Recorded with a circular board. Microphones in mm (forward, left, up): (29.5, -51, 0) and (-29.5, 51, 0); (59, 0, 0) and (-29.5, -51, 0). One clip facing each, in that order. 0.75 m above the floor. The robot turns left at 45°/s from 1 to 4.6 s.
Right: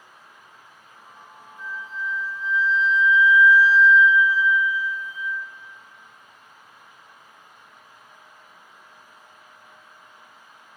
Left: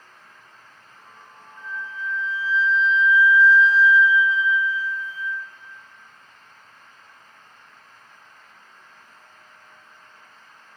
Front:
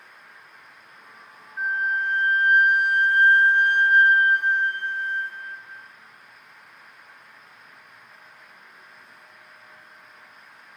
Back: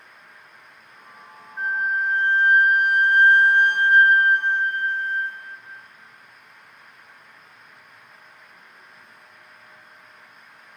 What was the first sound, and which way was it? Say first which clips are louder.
A flute: even, back 1 dB; 50° right.